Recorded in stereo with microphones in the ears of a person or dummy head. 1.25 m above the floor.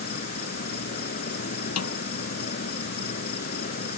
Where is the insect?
50° left (ahead or behind).